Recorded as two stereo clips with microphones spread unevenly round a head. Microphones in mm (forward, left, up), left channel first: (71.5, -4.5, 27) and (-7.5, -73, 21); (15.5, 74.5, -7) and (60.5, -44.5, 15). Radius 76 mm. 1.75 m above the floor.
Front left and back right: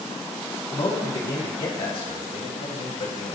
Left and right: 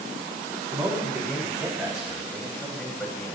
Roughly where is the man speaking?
Ahead.